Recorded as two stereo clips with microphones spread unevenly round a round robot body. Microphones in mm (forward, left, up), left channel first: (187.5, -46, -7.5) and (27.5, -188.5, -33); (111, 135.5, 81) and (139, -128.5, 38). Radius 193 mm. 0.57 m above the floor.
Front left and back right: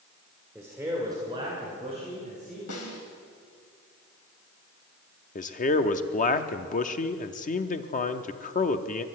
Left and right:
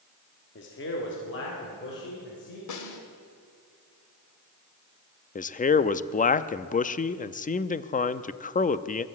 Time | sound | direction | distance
0.6 | a man speaking | 140° left | 1.7 m
2.7 | a snare drum | 85° left | 2 m
5.3 | a man speaking | 45° left | 0.6 m